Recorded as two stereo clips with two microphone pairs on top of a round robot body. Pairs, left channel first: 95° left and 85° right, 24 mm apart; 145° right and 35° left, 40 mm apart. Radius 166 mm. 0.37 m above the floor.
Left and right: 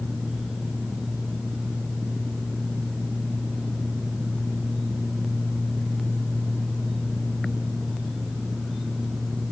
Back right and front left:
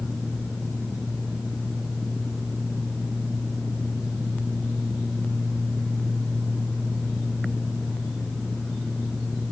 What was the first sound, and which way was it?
Only background noise.